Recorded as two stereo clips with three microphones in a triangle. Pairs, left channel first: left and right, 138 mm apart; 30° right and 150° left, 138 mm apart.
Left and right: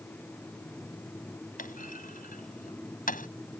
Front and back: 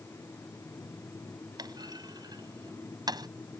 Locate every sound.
1.6 s a clunk: 90° left